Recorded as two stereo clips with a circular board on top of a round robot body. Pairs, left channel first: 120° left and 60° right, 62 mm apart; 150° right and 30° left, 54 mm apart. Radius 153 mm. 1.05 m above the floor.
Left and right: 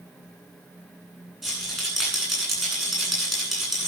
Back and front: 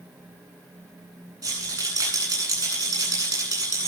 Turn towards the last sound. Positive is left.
turn(degrees=30)